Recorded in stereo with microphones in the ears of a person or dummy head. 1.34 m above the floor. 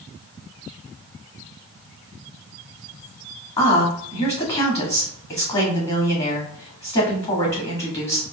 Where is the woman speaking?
30° left (ahead or behind), 1.4 m.